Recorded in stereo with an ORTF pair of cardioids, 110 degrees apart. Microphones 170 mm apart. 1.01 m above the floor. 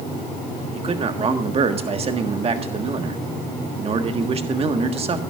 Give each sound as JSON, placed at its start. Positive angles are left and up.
{"t": 0.7, "sound": "a man speaking", "azimuth_deg": -35, "distance_m": 1.6}